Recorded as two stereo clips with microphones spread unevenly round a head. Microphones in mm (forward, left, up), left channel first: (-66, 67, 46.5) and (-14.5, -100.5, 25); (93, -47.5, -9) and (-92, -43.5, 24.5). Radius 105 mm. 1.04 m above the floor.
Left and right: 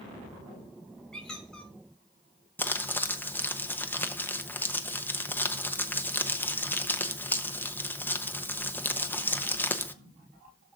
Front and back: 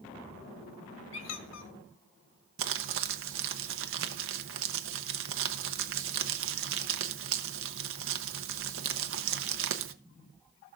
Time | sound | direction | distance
1.1 | a squeak | 25° left | 1.3 m
2.6 | crumpling | 170° right | 1.0 m